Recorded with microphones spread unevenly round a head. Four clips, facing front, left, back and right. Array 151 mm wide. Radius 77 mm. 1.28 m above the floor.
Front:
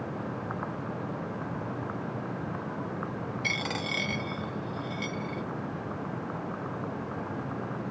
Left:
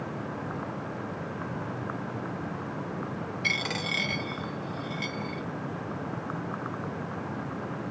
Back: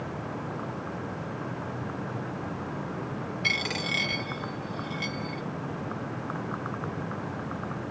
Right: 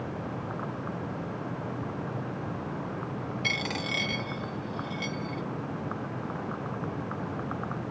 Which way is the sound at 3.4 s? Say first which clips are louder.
Left 1 dB, back 2 dB; 25° right.